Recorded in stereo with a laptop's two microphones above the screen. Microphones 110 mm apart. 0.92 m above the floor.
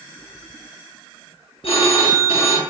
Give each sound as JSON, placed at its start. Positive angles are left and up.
{"t": 1.6, "sound": "a phone ringing", "side_deg": 65, "distance_m": 0.6}